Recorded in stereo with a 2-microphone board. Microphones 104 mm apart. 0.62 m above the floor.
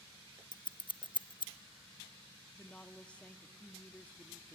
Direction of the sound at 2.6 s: 10° left (ahead or behind).